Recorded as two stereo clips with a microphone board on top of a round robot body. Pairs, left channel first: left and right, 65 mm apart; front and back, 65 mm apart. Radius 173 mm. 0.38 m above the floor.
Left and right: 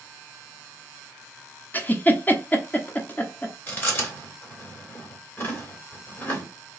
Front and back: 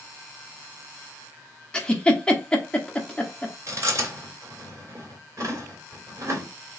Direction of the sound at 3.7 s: 145° left.